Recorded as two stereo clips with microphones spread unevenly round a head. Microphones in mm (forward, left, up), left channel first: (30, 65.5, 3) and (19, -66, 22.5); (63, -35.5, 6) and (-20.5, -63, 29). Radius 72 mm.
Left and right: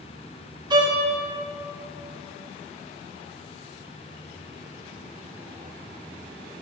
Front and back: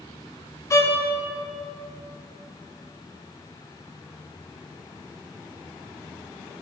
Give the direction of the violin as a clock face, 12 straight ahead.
1 o'clock.